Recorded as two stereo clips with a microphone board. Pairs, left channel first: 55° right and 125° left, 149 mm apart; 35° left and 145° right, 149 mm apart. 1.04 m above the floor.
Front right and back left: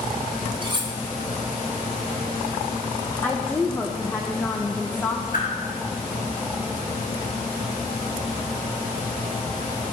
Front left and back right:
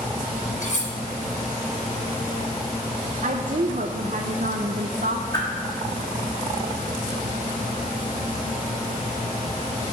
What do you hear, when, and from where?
0.6 s cutlery clinking: 70° left, 0.9 m
3.2 s a woman speaking: 130° right, 0.6 m
5.3 s a whoosh: 30° right, 1.9 m